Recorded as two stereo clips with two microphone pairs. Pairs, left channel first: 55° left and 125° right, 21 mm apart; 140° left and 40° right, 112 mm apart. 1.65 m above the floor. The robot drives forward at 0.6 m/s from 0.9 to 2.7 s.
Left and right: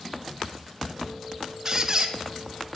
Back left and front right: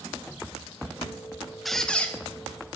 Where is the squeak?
125° right, 0.8 m; by 2.1 s 150° right, 0.9 m.